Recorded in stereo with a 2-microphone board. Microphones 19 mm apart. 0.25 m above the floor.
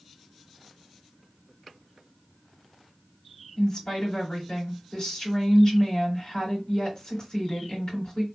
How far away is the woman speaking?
About 2 m.